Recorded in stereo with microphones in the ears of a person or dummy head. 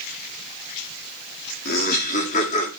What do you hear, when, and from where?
1.6 s laughter: 55° left (ahead or behind), 4.5 m; by 2.7 s 40° left (ahead or behind), 4.5 m